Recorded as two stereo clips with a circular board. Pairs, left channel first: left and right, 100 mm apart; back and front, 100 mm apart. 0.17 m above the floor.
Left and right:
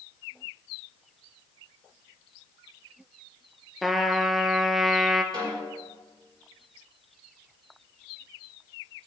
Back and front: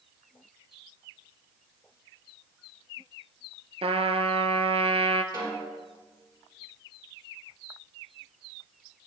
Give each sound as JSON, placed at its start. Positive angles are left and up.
{"t": 3.8, "sound": "a trumpet", "azimuth_deg": 0, "distance_m": 0.6}
{"t": 5.3, "sound": "a snare drum", "azimuth_deg": -40, "distance_m": 3.0}